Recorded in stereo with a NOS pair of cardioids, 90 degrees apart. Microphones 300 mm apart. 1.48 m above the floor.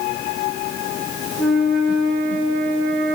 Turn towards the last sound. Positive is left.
turn(degrees=-40)